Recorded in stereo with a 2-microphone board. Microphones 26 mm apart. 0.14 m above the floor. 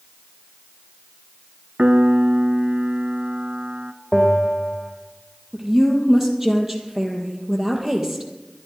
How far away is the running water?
No running water in this recording.